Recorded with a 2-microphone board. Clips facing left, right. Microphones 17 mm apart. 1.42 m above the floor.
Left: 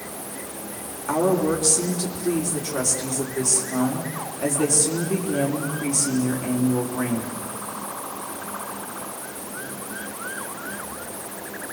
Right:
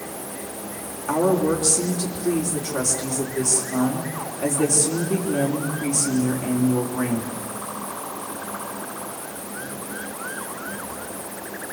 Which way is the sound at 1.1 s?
Centre (ahead or behind).